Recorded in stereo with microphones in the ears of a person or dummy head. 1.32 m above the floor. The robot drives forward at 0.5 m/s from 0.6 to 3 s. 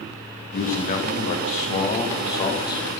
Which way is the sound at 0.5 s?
50° left (ahead or behind).